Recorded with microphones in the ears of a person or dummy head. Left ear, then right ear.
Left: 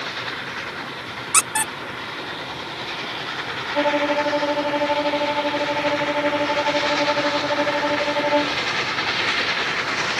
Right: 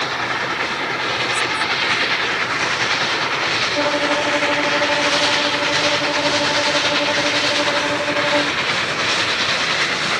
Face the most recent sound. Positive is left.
turn(degrees=80)